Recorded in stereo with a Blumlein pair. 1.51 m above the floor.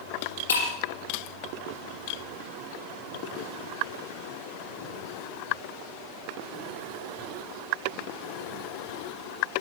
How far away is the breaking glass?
About 5 m.